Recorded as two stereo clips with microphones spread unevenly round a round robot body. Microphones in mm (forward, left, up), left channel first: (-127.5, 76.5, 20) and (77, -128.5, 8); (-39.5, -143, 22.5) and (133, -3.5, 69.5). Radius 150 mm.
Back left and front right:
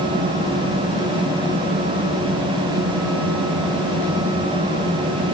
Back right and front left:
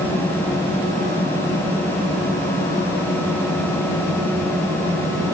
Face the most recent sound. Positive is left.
No sound to turn to.